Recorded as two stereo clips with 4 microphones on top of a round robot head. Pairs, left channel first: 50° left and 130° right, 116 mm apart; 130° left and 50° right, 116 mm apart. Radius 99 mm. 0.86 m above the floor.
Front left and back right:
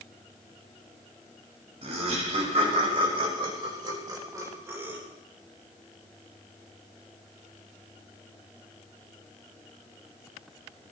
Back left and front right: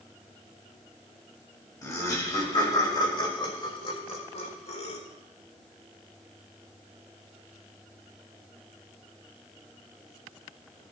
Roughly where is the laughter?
Behind.